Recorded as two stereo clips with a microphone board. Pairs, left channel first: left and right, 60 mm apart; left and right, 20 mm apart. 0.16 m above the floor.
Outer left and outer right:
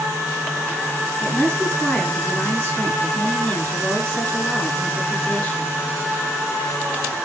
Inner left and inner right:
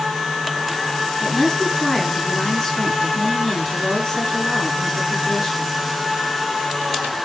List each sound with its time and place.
1.2 s a woman speaking: 35° left (ahead or behind), 2 m